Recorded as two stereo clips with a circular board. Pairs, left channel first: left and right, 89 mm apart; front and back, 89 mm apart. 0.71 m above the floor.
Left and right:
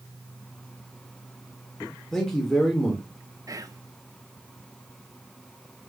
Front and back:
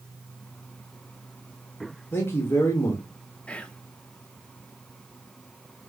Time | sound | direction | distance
2.1 | a man speaking | 10° left | 1.1 m
3.5 | whispering | 70° right | 0.6 m